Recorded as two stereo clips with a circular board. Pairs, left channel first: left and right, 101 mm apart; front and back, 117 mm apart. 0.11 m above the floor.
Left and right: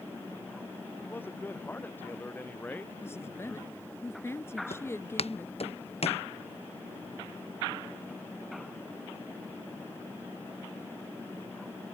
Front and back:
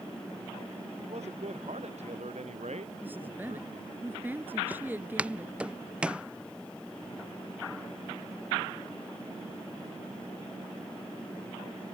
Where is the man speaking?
160° left; by 3.9 s 165° left.